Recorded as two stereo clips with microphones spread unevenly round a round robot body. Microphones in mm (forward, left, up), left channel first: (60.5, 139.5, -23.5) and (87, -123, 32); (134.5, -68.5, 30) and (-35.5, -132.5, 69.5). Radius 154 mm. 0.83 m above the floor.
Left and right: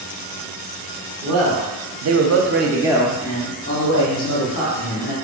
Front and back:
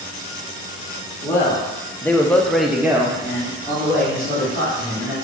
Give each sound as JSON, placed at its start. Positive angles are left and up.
{"t": 1.2, "sound": "a man speaking", "azimuth_deg": -50, "distance_m": 1.4}